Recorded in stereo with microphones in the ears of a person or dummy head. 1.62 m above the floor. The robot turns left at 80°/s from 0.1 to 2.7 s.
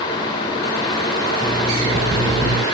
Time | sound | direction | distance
1.4 | an alarm clock | 5° left | 1.1 m